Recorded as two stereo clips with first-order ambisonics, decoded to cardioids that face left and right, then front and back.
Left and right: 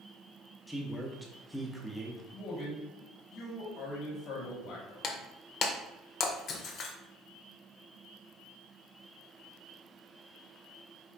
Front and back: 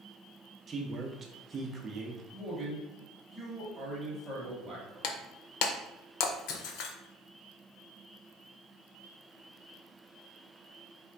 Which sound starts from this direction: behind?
A man speaking, at 0.7 s.